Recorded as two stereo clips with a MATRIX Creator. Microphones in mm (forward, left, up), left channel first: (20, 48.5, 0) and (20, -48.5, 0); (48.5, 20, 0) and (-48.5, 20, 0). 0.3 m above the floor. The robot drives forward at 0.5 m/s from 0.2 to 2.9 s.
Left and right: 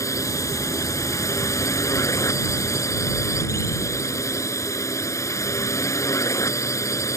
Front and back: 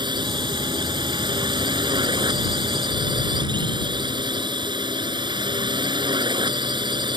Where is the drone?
145° left; by 7.2 s 150° left.